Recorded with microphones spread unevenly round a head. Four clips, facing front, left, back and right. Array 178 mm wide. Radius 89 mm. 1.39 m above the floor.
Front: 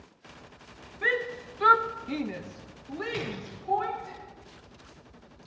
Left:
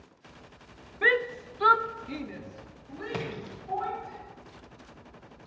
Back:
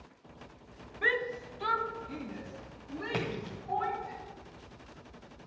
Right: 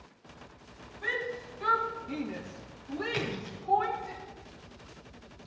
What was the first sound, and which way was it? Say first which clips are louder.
A shout: left 8 dB, front 2 dB; 75° left.